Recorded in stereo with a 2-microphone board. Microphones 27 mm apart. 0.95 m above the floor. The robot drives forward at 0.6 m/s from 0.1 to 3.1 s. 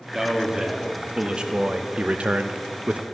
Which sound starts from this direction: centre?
A man speaking, at 0.1 s.